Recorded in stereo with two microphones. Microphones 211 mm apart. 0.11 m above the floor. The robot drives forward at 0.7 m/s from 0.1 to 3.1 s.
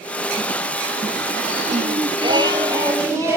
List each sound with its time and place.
1.7 s singing: 35° right (ahead or behind), 0.5 m; by 3.4 s 15° right (ahead or behind), 1.3 m